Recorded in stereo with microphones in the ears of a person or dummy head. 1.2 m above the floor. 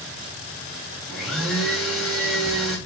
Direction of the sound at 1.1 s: Centre (ahead or behind).